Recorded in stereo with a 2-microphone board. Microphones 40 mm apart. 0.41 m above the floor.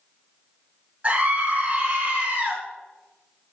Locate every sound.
1.0 s a scream: 30° right (ahead or behind), 5.5 m